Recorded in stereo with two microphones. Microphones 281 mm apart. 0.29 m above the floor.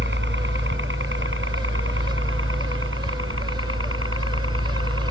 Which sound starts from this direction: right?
A helicopter, at 0.0 s.